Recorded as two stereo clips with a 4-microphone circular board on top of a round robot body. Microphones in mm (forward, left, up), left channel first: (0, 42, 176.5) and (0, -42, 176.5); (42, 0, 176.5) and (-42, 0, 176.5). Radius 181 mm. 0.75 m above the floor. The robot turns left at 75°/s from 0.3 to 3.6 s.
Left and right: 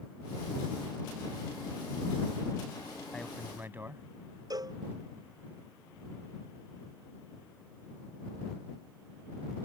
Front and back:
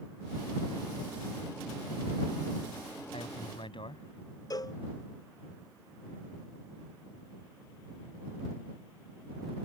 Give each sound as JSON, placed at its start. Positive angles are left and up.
{"t": 3.1, "sound": "a man speaking", "azimuth_deg": 15}
{"t": 4.5, "sound": "a cowbell", "azimuth_deg": -45}